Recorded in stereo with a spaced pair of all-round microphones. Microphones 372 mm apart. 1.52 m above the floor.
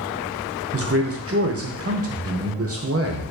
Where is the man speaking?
40° right (ahead or behind), 0.6 m.